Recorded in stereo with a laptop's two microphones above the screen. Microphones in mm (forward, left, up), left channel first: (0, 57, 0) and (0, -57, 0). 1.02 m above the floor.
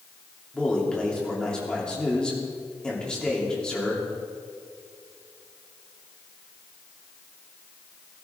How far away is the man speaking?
About 3 m.